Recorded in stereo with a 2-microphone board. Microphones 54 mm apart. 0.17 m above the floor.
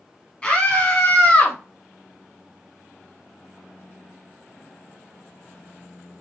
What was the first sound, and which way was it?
A scream, 20° left (ahead or behind).